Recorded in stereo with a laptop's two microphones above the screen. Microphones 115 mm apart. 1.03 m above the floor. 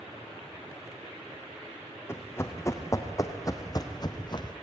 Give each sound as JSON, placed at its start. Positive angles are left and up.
{"t": 2.1, "sound": "running footsteps", "side_deg": 20, "distance_m": 3.0}